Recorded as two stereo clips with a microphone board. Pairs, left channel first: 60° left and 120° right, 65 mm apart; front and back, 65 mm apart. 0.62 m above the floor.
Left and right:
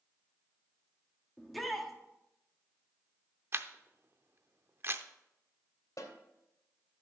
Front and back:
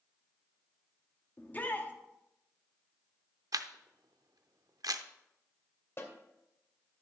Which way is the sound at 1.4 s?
30° right.